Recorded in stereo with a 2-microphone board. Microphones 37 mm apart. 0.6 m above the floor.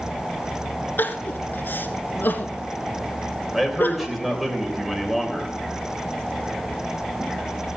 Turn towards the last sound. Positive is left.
turn(degrees=-5)  # may be behind; listen again after turning